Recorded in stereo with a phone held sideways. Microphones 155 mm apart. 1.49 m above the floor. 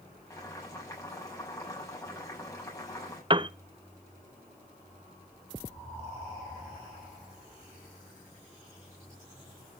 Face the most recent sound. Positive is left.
turn(degrees=-35)  # may be behind; listen again after turning